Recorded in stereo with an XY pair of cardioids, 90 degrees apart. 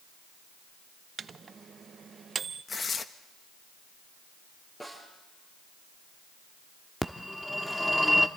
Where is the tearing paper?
45° left, 1.1 m.